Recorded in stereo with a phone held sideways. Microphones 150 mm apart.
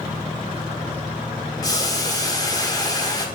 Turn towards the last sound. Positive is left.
turn(degrees=25)  # may be behind; listen again after turning